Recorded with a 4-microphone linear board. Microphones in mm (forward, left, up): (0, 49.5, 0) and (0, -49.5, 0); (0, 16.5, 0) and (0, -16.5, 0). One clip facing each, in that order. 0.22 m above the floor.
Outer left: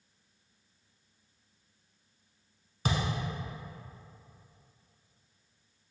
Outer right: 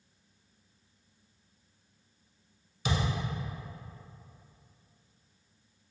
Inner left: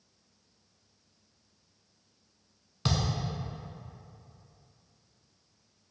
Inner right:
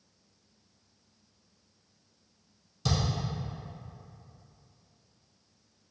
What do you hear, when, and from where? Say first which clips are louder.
2.9 s a thud: even, even; 45° left (ahead or behind), 0.8 m